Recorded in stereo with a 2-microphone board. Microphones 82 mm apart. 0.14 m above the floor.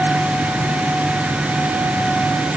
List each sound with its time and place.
Only background noise.